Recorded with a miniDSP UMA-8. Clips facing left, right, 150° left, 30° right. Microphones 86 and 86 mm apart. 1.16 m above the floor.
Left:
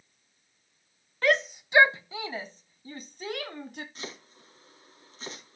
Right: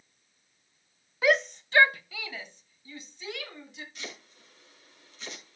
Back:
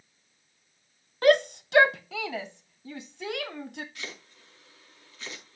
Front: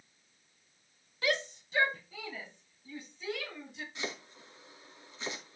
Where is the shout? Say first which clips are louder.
Right 1 dB, back 13 dB; 175° right, 0.6 m; by 3.9 s 125° left, 1.8 m.